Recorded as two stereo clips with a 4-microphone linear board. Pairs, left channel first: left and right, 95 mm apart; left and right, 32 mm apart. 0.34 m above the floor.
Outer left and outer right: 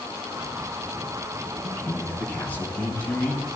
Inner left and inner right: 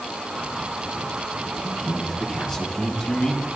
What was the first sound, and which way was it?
A man speaking, 15° left (ahead or behind).